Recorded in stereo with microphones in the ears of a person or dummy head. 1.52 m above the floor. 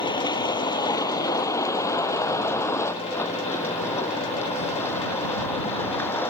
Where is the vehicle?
25° left (ahead or behind); by 6.3 s 10° left (ahead or behind).